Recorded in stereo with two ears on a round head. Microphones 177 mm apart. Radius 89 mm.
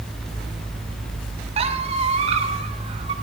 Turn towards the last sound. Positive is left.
turn(degrees=-30)  # may be behind; listen again after turning